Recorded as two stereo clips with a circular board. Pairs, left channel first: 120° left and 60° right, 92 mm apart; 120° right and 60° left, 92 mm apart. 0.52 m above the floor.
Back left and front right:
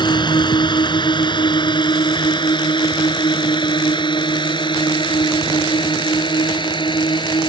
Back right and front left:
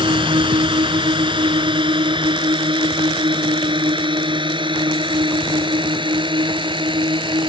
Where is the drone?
85° left; by 7.5 s 90° left.